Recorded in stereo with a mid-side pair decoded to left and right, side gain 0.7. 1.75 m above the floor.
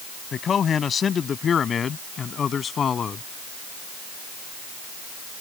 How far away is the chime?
I don't hear a chime.